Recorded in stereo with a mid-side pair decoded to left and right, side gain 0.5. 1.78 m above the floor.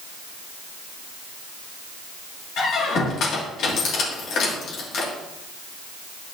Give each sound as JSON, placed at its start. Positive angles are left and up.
{"t": 2.6, "sound": "a squeak", "azimuth_deg": 65, "distance_m": 2.0}